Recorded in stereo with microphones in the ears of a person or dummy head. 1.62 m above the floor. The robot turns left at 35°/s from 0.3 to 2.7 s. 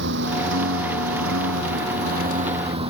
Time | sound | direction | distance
0.0 | a lawn mower | 65° right | ?